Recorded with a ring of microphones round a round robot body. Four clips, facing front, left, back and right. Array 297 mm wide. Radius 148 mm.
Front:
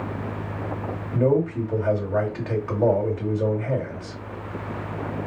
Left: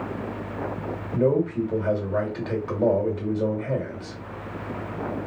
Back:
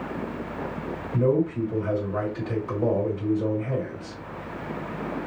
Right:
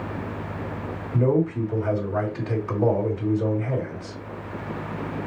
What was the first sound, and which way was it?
A man speaking, 35° left.